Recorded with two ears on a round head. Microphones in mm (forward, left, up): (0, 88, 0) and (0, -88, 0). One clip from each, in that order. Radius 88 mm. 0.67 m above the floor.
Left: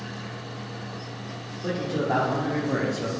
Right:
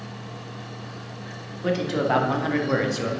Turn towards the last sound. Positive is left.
turn(degrees=-25)  # may be behind; listen again after turning